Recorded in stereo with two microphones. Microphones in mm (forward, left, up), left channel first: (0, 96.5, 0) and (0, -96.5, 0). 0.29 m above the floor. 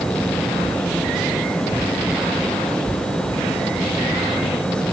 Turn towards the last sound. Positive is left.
No sound to turn to.